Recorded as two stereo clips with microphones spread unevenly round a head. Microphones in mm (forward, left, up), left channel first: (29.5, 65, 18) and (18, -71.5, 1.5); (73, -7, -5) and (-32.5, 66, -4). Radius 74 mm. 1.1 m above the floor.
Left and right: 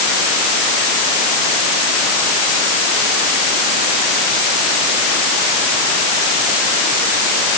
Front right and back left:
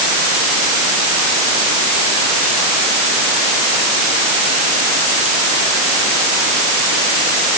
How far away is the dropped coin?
No dropped coin in this recording.